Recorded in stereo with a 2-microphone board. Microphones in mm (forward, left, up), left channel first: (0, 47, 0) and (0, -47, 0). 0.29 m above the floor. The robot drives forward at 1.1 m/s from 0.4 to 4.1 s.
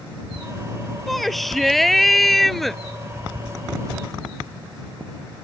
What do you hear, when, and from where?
1.1 s a shout: centre (ahead or behind); by 2.8 s 5° left (ahead or behind)